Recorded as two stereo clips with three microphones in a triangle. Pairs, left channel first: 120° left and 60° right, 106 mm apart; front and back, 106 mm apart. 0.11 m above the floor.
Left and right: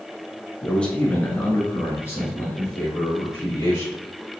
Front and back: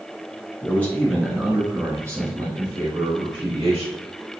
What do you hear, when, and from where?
0.6 s a man speaking: 45° left, 1.1 m; by 3.9 s 175° left, 1.9 m